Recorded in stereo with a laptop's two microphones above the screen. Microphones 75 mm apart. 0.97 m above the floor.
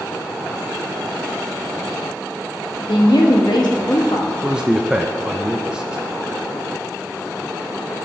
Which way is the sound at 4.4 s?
10° right (ahead or behind).